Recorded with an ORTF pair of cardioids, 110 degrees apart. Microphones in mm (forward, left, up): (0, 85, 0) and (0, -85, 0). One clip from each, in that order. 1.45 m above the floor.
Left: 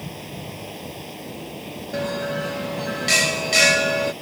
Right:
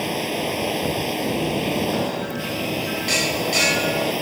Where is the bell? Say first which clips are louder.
Right 1 dB; 25° left.